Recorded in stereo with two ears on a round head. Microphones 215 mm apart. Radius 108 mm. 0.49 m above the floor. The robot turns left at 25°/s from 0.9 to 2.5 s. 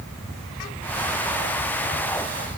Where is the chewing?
I don't hear chewing.